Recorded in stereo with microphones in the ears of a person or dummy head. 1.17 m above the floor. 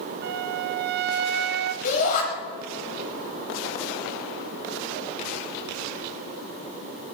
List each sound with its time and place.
0.2 s a flute: 55° right (ahead or behind), 0.8 m
1.8 s a shout: 45° left (ahead or behind), 5.5 m